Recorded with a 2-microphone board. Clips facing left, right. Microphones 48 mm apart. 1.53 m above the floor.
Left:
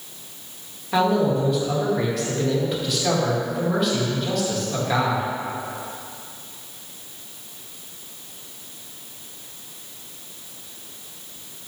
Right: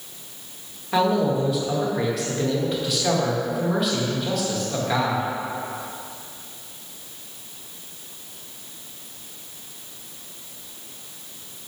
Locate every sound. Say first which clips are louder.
0.9 s a man speaking: left 1 dB; centre (ahead or behind), 2.0 m